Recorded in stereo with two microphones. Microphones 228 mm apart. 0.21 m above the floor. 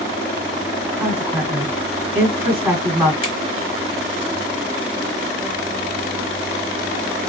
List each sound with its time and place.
0.9 s a woman speaking: 10° right (ahead or behind), 1.7 m
3.2 s a finger snap: 40° right (ahead or behind), 1.8 m